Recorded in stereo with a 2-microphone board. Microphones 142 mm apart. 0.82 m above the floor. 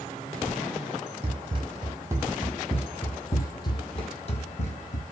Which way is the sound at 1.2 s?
40° right (ahead or behind).